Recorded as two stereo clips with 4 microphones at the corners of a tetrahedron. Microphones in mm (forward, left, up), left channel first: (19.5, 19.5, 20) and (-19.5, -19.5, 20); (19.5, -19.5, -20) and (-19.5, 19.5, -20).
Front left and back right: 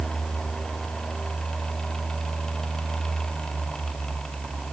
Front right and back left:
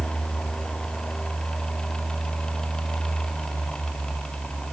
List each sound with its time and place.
Only background noise.